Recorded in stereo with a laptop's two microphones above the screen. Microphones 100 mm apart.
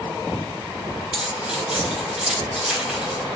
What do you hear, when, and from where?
1.1 s keys jangling: 10° right (ahead or behind), 0.8 m